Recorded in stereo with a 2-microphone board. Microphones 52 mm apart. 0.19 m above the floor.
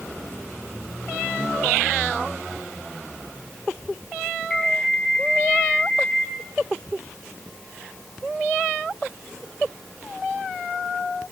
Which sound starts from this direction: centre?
An alarm, at 4.5 s.